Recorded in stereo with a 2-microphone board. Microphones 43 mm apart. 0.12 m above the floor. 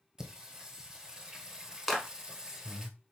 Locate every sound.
0.2 s singing: 15° right (ahead or behind), 0.8 m
1.9 s a clap: centre (ahead or behind), 1.2 m